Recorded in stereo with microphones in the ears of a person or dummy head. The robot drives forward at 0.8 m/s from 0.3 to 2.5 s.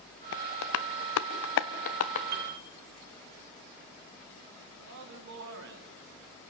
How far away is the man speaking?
About 3.5 m.